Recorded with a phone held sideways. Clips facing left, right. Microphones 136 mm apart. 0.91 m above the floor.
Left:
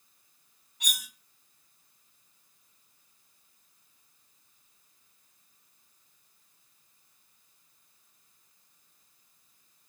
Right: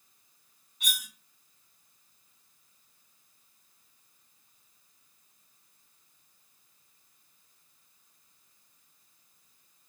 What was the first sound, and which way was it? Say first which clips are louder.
Cutlery clinking: right 1 dB; 80° left.